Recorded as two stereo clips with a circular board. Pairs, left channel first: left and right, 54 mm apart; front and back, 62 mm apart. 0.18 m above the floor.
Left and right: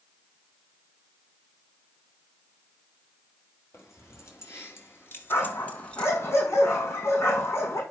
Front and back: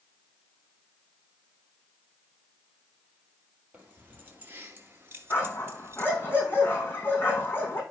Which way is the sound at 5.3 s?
55° left.